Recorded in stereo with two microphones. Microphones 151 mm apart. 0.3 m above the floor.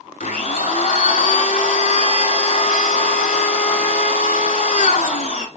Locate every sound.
0.2 s a blender: 60° left (ahead or behind), 0.6 m